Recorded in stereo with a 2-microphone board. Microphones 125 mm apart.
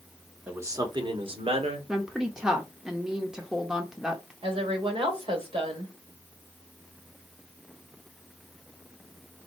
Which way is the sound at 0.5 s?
15° right (ahead or behind).